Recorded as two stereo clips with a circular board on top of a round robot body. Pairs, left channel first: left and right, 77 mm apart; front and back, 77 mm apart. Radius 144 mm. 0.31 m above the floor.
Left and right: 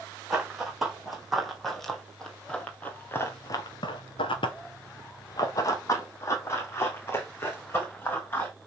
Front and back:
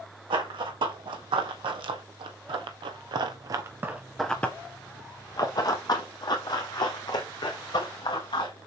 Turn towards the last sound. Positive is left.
turn(degrees=25)